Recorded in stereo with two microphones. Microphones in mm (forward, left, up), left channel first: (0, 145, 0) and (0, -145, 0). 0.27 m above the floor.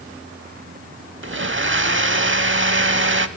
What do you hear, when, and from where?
1.2 s a blender: 45° right (ahead or behind), 0.5 m